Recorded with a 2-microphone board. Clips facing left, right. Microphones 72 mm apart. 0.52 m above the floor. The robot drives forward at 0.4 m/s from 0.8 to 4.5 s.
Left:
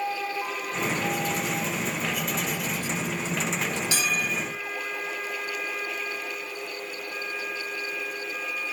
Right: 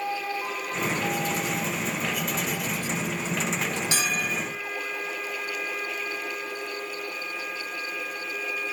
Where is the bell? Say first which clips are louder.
Even; 30° right (ahead or behind), 3.5 m.